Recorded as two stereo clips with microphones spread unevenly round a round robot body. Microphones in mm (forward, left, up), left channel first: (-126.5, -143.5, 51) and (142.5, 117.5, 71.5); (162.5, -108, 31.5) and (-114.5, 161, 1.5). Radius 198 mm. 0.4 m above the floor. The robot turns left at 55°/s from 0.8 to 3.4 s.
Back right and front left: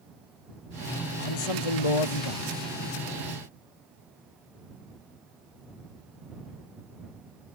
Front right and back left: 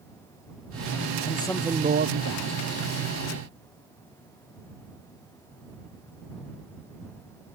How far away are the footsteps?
I don't hear footsteps.